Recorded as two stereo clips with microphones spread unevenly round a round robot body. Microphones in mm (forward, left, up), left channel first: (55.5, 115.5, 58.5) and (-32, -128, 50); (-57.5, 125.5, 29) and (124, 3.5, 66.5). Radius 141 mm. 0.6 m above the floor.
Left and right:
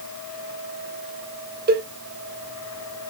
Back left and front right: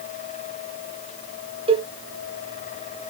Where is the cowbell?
100° right, 0.8 m.